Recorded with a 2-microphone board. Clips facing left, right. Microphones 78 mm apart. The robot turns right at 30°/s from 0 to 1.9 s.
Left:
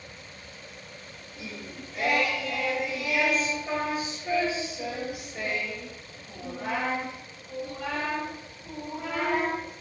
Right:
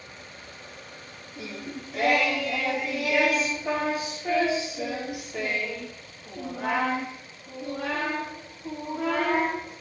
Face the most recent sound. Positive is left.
turn(degrees=-70)  # may be behind; listen again after turning